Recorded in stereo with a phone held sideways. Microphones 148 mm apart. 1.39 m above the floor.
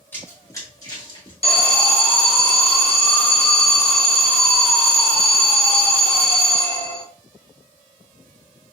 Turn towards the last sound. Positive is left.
turn(degrees=40)  # may be behind; listen again after turning